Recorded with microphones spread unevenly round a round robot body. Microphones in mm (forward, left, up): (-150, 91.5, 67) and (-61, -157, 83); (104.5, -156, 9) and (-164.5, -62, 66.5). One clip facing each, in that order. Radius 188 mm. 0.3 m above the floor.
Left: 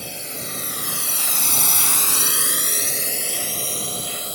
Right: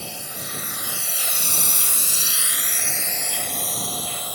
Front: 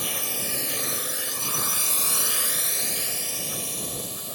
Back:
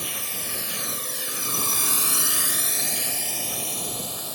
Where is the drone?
35° left; by 4.4 s 175° left.